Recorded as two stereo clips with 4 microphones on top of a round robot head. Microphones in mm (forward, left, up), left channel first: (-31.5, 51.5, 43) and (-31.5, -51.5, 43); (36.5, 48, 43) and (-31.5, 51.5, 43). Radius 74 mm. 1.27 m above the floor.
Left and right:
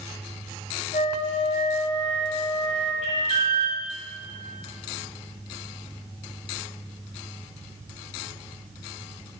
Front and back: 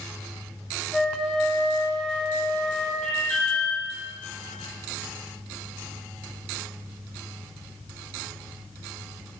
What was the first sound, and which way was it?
A flute, 80° left.